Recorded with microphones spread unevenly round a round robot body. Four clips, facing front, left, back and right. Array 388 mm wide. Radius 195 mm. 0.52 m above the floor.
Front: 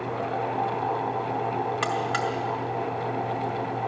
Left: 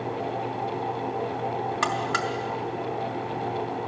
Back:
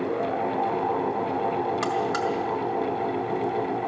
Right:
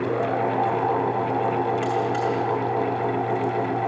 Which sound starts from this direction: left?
A buzzer, at 1.8 s.